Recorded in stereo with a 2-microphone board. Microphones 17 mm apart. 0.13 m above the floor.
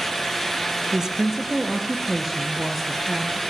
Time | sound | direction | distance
0.9 | a woman speaking | 30° right (ahead or behind) | 2.5 m